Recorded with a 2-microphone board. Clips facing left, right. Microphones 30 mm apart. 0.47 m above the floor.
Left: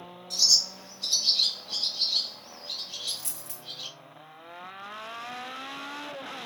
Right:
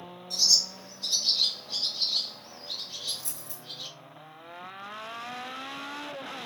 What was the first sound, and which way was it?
A bird, 75° left (ahead or behind).